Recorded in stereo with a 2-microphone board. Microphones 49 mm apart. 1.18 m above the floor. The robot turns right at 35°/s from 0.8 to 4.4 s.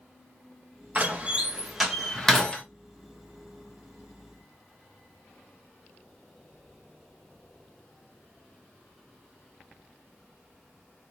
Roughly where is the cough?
I don't hear a cough.